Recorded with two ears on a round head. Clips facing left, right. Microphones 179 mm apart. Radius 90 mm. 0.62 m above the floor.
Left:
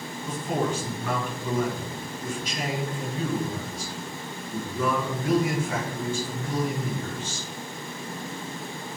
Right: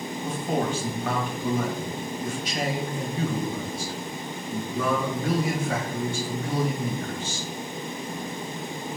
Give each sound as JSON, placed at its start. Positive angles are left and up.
{"t": 0.2, "sound": "a man speaking", "side_deg": -50, "distance_m": 4.0}